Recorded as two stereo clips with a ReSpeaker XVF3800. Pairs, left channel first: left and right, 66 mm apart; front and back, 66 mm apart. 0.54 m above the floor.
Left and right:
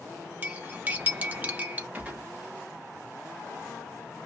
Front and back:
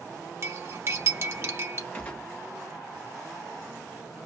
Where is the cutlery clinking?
145° right, 0.7 m.